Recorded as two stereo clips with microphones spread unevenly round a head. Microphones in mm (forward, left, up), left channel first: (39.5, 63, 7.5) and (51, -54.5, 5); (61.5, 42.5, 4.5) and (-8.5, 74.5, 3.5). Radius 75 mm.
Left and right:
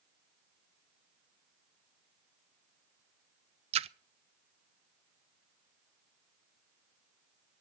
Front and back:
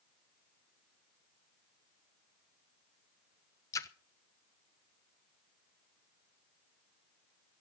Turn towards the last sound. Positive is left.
turn(degrees=-75)